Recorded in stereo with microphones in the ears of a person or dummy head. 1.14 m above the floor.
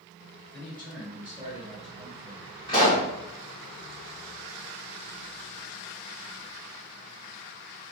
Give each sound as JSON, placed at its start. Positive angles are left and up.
{"t": 0.5, "sound": "a man speaking", "side_deg": 10, "distance_m": 1.4}
{"t": 2.7, "sound": "a pop", "side_deg": 20, "distance_m": 1.5}